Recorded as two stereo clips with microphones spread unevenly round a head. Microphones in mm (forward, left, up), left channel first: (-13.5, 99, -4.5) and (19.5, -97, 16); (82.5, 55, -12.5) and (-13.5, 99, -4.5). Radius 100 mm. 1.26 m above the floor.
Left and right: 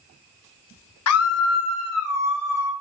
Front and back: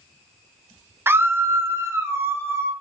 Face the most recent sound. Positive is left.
turn(degrees=90)